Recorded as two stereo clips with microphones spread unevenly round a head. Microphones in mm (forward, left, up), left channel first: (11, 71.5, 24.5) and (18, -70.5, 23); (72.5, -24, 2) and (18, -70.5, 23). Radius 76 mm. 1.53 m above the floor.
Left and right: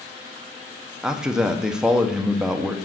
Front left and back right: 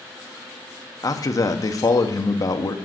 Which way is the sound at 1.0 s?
Straight ahead.